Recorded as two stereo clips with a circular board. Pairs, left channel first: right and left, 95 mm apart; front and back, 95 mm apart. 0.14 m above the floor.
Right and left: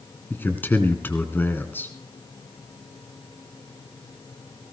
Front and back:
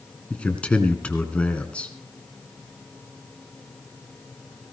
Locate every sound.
0.3 s a man speaking: 60° right, 1.8 m